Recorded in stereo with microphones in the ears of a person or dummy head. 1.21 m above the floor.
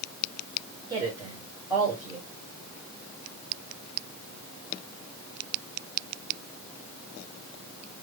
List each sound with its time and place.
0.9 s a woman speaking: 10° right (ahead or behind), 2.5 m